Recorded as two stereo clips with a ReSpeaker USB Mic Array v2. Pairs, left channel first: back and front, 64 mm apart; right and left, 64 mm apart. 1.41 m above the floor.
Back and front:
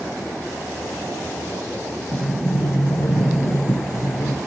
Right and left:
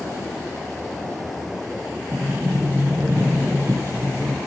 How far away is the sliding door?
About 0.6 m.